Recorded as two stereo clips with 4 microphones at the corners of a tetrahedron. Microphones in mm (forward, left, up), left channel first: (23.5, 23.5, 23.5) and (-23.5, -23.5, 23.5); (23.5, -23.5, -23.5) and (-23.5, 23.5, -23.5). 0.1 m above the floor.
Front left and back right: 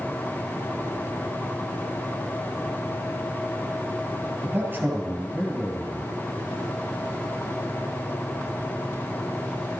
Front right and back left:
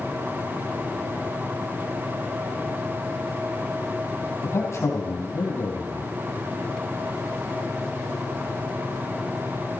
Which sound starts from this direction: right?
A man speaking, at 4.4 s.